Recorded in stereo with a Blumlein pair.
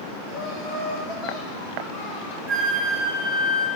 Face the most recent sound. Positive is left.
turn(degrees=-20)